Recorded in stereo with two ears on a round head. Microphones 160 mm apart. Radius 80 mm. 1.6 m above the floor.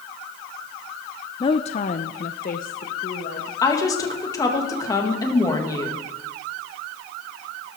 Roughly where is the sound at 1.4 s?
Left.